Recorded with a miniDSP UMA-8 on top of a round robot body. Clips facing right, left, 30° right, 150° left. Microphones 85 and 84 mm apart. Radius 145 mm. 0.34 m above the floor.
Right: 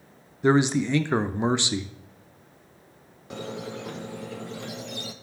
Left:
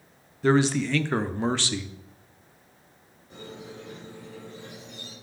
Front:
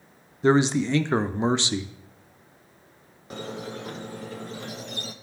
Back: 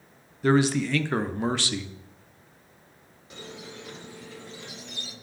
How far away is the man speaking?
About 0.9 m.